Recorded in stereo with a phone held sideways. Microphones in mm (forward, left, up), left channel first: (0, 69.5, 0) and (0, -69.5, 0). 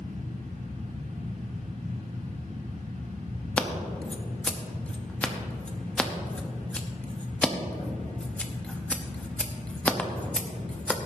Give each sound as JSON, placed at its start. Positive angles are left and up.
{"t": 0.0, "sound": "a fan", "side_deg": -75, "distance_m": 2.5}
{"t": 3.6, "sound": "scissors", "side_deg": 10, "distance_m": 0.9}